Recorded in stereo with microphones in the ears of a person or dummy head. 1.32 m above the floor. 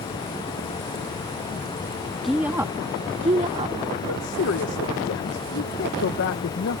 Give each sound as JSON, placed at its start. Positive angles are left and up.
{"t": 2.2, "sound": "a woman speaking", "side_deg": 0}
{"t": 4.1, "sound": "a woman speaking", "side_deg": 60}